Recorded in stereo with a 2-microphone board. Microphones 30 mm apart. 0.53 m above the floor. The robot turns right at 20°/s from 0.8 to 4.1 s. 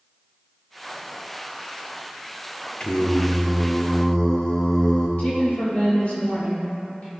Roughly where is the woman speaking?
Left.